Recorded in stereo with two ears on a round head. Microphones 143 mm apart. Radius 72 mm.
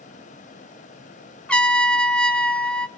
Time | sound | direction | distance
1.5 | a trumpet | 5° left (ahead or behind) | 0.9 m